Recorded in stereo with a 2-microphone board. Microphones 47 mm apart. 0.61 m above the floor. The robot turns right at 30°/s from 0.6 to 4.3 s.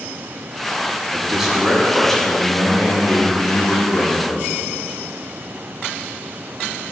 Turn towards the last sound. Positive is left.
turn(degrees=75)